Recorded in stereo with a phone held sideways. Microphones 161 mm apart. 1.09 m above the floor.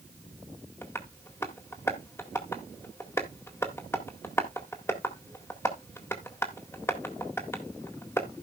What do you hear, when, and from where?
0.8 s tapping: 15° left (ahead or behind), 1.8 m